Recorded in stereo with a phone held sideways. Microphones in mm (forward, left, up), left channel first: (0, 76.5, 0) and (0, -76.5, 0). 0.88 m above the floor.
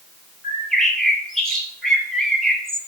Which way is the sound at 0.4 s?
5° left (ahead or behind).